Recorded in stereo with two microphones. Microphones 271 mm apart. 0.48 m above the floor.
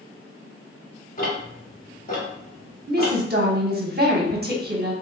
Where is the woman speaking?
40° right (ahead or behind), 0.9 m.